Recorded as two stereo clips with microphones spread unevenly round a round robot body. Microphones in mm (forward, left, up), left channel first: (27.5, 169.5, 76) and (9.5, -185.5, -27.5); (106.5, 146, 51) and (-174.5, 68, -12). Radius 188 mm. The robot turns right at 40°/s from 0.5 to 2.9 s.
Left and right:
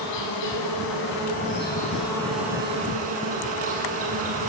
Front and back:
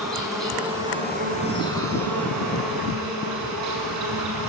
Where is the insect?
110° left, 5.5 m; by 4.5 s 155° right, 5.5 m.